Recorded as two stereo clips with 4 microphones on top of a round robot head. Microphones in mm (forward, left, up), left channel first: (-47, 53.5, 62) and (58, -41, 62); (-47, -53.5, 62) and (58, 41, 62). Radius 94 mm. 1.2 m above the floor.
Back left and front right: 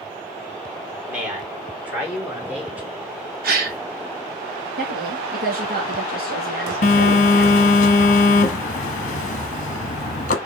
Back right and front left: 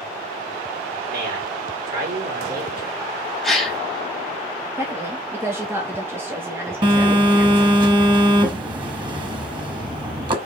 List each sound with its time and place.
1.1 s a man speaking: 40° left, 5.5 m; by 2.9 s 35° left, 5 m
3.4 s a gasp: 50° right, 2 m
4.8 s a woman speaking: 35° right, 2.5 m
6.8 s a phone buzzing: 100° left, 1.0 m